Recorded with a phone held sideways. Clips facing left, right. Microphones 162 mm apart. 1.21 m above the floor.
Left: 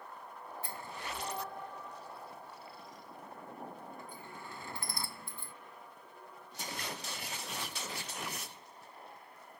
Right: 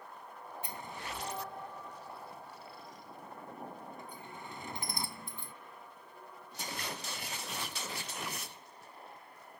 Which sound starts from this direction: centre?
A sliding door, at 0.6 s.